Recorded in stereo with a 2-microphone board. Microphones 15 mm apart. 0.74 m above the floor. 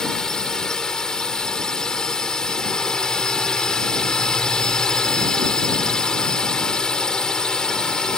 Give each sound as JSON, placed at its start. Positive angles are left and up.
{"t": 0.0, "sound": "a drone", "side_deg": 55}